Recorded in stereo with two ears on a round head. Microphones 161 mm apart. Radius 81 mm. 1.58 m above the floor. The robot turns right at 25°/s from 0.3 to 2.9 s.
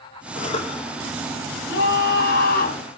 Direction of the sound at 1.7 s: 75° left (ahead or behind).